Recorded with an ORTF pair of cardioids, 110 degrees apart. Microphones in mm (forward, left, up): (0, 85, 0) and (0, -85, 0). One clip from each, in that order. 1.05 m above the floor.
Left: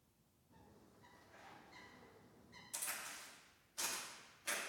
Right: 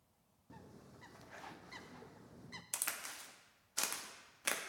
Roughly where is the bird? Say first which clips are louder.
Right 8 dB; right.